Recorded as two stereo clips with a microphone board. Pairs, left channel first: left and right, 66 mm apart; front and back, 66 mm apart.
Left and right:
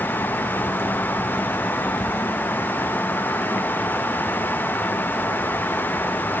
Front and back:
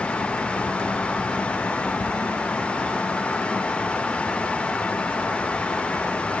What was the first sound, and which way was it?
Only background noise.